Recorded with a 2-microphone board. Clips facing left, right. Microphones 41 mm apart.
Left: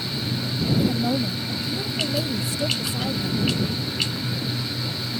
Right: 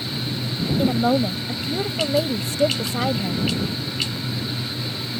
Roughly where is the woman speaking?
Right.